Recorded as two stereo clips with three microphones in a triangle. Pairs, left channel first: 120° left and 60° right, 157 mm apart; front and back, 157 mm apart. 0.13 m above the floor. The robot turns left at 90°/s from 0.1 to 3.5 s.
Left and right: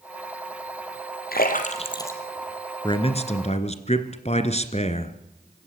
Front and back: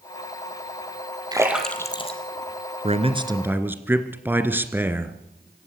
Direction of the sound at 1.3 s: 120° left.